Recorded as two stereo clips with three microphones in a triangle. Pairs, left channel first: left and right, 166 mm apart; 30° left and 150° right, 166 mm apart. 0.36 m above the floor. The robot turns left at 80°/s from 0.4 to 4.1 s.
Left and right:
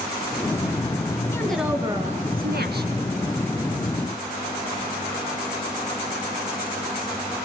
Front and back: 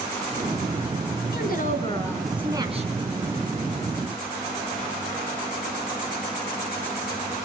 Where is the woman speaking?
20° left, 3.5 m; by 2.9 s 110° right, 3.5 m.